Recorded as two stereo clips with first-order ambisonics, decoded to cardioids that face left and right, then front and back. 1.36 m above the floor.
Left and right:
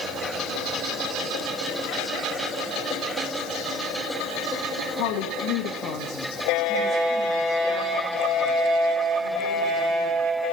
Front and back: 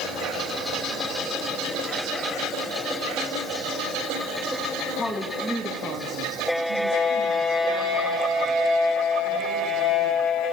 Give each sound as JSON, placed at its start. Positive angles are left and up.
{"t": 5.0, "sound": "a woman speaking", "azimuth_deg": 75, "distance_m": 1.8}